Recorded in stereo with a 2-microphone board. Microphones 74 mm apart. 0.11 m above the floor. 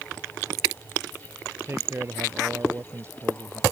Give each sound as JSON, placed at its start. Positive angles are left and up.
{"t": 1.6, "sound": "a man speaking", "side_deg": -35}